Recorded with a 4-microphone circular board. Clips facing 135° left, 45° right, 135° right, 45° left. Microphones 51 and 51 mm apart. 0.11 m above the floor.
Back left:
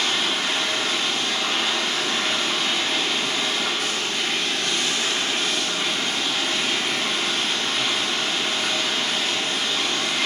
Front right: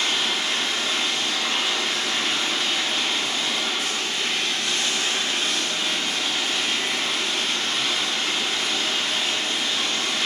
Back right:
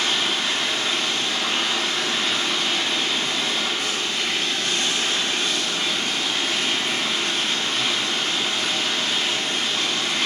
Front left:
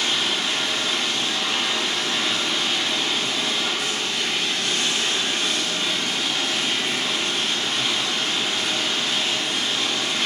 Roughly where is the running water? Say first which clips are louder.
Back left 1 dB, back right 1 dB; behind.